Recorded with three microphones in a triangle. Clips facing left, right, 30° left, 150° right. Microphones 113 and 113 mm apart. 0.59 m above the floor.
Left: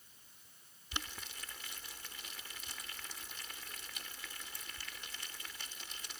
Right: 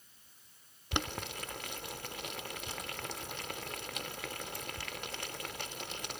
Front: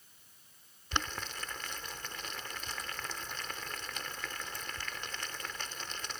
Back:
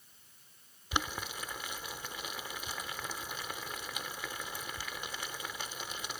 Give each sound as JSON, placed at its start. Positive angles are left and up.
{"t": 0.9, "sound": "boiling", "azimuth_deg": -70}